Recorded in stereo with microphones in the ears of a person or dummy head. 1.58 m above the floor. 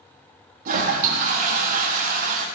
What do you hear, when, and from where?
0.7 s a toilet flushing: 45° right (ahead or behind), 1.5 m